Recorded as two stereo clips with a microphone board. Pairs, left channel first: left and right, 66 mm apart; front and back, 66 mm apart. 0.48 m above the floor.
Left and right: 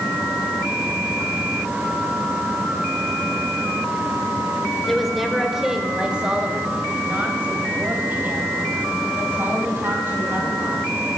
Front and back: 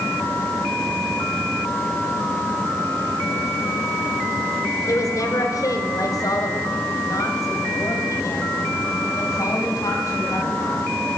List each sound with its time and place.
4.9 s a woman speaking: 5° left, 2 m; by 11.2 s 35° right, 5.5 m